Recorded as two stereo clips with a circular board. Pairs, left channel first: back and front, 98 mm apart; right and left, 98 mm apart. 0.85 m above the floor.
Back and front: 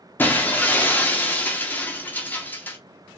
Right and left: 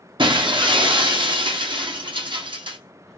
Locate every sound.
0.2 s breaking glass: 110° left, 0.5 m